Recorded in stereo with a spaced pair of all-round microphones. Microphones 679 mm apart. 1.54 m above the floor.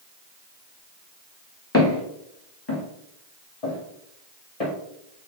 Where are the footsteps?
20° left (ahead or behind), 1.6 m; by 4.7 s 55° left (ahead or behind), 2.5 m.